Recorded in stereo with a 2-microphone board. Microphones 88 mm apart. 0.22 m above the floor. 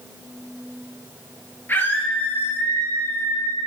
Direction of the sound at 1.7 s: 25° left (ahead or behind).